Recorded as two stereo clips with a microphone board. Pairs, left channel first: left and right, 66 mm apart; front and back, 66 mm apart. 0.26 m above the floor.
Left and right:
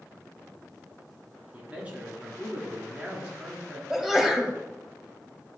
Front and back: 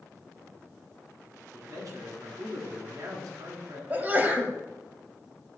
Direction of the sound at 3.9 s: 170° right.